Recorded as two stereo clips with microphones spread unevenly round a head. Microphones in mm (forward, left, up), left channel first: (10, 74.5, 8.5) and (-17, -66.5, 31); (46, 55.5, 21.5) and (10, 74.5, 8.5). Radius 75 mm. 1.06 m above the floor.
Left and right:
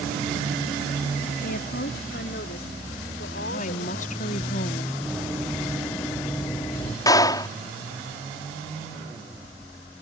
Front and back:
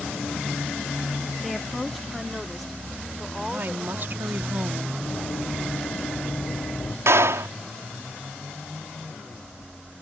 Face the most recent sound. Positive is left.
turn(degrees=150)